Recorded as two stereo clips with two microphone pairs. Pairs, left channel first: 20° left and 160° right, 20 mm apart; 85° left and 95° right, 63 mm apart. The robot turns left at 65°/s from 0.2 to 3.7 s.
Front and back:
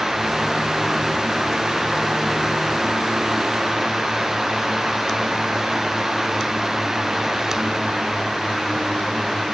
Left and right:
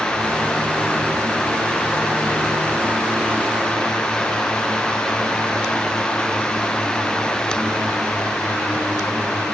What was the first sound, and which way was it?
Only background noise.